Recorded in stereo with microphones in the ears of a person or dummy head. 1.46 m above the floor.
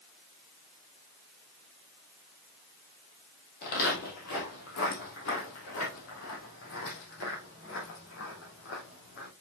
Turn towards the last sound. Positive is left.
turn(degrees=65)  # may be behind; listen again after turning